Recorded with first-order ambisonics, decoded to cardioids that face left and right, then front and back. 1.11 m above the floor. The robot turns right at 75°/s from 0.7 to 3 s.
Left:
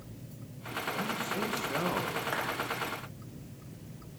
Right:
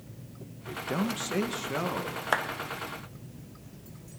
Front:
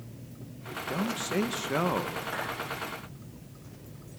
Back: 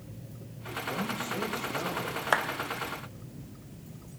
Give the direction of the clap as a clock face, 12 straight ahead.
5 o'clock.